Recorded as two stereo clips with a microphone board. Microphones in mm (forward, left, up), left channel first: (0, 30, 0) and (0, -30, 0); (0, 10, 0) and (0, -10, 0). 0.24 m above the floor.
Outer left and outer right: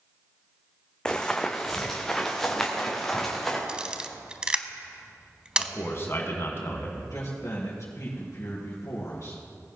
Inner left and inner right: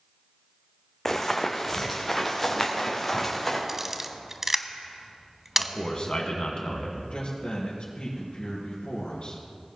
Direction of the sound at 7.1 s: 55° left (ahead or behind).